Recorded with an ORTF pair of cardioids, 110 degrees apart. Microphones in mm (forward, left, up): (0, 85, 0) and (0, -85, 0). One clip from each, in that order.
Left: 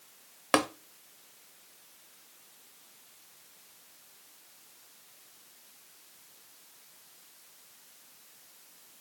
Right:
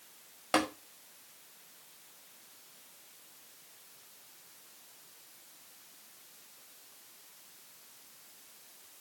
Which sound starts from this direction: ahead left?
Tapping, at 0.5 s.